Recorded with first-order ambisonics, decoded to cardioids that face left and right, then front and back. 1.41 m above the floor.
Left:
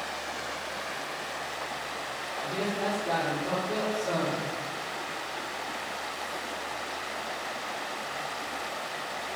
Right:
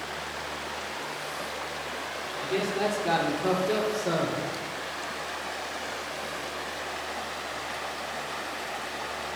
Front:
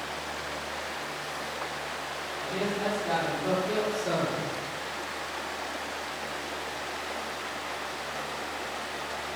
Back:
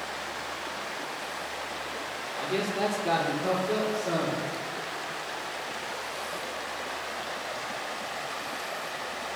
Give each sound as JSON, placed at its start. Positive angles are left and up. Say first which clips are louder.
{"t": 2.4, "sound": "a man speaking", "louder": "right 4 dB, back 3 dB", "azimuth_deg": -155, "distance_m": 0.9}